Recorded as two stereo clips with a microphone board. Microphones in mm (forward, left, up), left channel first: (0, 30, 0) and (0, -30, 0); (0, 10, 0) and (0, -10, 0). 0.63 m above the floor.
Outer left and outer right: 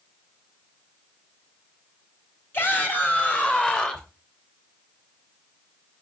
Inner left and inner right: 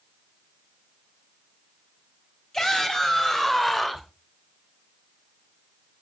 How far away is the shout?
About 4 m.